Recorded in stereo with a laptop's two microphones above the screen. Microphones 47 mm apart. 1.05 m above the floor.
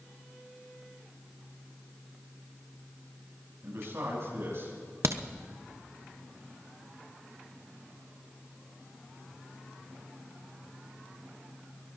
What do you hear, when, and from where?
3.6 s a man speaking: 60° right (ahead or behind), 6 m; by 4.7 s 55° right (ahead or behind), 6.5 m
5.0 s a crack: 70° right (ahead or behind), 0.6 m